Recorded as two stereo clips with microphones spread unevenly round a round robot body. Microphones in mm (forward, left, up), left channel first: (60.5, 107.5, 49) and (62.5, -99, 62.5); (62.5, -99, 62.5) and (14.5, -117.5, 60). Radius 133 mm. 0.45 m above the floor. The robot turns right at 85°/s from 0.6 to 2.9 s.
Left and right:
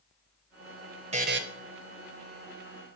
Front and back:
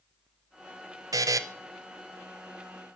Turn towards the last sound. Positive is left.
turn(degrees=-5)